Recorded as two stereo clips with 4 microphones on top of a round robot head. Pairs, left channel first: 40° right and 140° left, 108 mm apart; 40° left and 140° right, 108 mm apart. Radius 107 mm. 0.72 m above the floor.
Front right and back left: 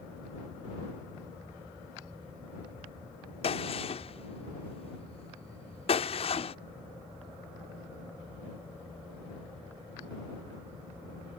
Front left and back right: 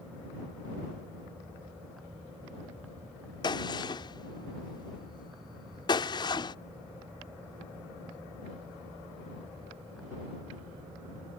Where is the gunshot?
10° right.